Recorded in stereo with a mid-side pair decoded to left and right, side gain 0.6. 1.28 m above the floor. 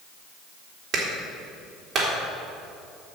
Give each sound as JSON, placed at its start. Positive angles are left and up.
{"t": 0.9, "sound": "a clap", "azimuth_deg": -40, "distance_m": 3.5}